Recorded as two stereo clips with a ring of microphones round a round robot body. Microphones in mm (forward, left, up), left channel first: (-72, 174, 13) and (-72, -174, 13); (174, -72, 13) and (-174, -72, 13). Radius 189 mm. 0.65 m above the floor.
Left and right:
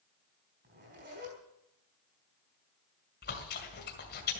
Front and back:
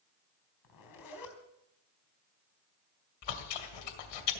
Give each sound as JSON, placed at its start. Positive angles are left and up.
{"t": 0.6, "sound": "a zipper", "azimuth_deg": -25, "distance_m": 4.0}
{"t": 3.2, "sound": "chewing", "azimuth_deg": 25, "distance_m": 2.0}